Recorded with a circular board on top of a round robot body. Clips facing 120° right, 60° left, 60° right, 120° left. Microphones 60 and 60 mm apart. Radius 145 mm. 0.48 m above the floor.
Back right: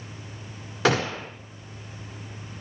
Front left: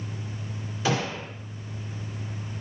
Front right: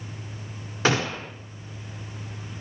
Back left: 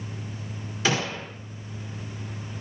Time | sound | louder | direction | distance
0.8 | a gunshot | back right 4 dB, front right 3 dB | 105° right | 2.0 m